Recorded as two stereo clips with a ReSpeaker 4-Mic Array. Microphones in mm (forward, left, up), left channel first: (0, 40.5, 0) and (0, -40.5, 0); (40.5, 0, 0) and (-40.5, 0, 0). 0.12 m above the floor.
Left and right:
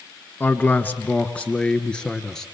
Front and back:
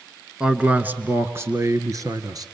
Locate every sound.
0.4 s a man speaking: 110° left, 1.5 m; by 2.5 s 170° left, 2 m